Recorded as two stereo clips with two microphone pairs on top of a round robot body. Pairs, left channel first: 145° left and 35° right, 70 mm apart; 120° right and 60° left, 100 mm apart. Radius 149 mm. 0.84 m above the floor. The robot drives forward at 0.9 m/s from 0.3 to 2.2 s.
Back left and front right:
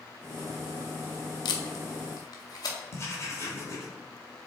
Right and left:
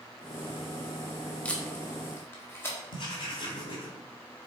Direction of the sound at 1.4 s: 160° left.